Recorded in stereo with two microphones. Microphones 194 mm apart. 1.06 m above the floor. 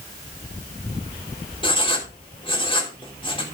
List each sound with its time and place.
1.6 s writing: 25° left (ahead or behind), 3 m